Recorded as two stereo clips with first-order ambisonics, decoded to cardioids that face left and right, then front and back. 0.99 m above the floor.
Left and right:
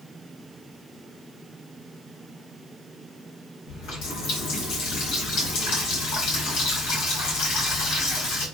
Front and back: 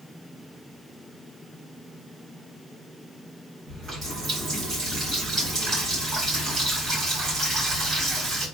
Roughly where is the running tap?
Left.